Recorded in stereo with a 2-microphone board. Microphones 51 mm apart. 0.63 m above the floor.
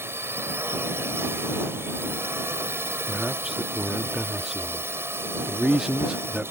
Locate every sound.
0.0 s a drone: 55° right (ahead or behind)
3.1 s a man speaking: 15° right (ahead or behind)